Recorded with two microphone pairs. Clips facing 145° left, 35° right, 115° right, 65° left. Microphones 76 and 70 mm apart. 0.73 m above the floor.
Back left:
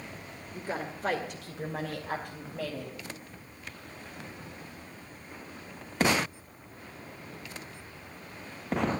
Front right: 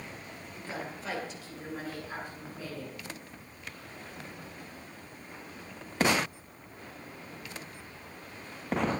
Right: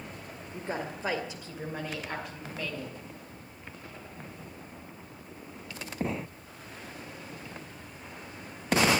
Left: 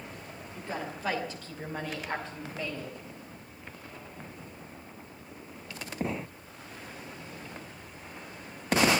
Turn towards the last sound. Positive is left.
turn(degrees=150)